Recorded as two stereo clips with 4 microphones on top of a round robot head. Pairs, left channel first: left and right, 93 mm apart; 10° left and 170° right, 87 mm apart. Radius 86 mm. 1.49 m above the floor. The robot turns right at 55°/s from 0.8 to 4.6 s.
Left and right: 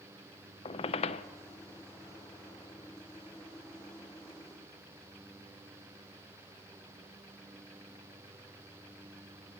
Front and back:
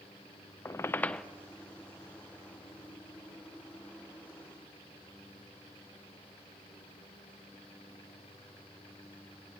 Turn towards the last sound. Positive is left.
turn(degrees=-80)